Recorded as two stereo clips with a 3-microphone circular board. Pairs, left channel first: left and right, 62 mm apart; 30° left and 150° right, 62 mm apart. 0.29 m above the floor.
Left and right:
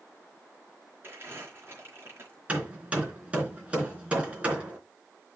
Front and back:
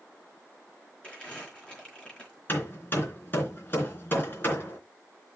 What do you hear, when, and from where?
1.0 s crumpling: 40° right, 4.5 m
2.5 s hammering: 20° right, 3.5 m